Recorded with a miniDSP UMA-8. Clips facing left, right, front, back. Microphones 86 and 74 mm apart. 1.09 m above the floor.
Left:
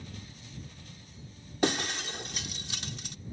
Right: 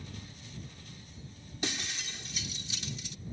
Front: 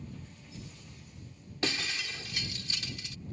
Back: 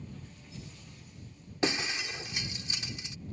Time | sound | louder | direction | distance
1.6 | breaking glass | left 9 dB, back 3 dB | 115° left | ?